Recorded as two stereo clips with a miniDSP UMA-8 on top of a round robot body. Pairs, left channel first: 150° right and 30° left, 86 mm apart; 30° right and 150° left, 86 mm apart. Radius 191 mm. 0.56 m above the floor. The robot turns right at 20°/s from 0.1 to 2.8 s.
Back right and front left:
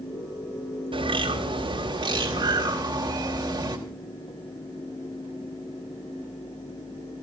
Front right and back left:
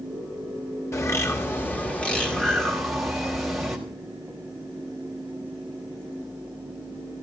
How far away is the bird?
About 4.5 m.